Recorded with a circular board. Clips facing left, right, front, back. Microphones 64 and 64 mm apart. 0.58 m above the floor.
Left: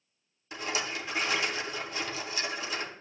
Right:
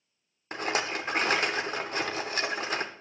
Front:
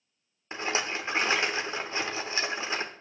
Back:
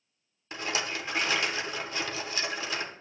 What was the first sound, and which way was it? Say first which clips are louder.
A rattle: right 4 dB, front 2 dB; 60° right.